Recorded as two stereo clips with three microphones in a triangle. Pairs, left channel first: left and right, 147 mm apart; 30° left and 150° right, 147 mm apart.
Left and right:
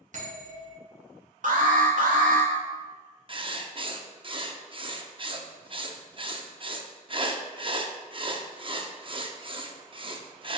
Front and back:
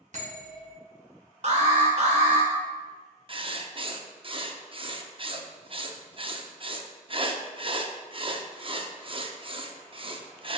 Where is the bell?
120° right, 3.5 m.